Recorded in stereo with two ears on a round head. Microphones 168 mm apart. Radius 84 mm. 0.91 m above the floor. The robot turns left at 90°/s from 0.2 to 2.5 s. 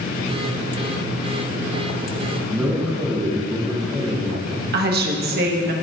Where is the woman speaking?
55° right (ahead or behind), 1.1 m.